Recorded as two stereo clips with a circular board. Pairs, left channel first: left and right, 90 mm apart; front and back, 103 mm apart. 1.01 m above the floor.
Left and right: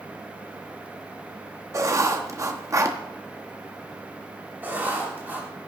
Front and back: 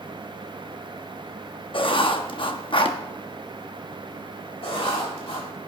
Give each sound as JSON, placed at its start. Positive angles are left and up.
{"t": 1.7, "sound": "writing", "azimuth_deg": -35, "distance_m": 1.0}
{"t": 4.6, "sound": "writing", "azimuth_deg": -20, "distance_m": 3.0}